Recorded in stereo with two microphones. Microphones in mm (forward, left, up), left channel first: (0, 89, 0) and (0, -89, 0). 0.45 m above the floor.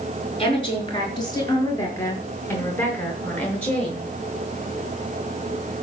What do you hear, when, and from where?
0.4 s a woman speaking: 30° left (ahead or behind), 5.5 m; by 4.0 s 5° left (ahead or behind), 6 m